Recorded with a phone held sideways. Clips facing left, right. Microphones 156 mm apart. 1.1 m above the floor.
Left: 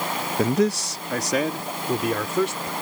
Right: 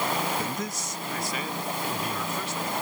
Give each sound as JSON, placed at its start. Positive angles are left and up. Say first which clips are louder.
{"t": 0.4, "sound": "a man speaking", "louder": "left 12 dB", "side_deg": 65}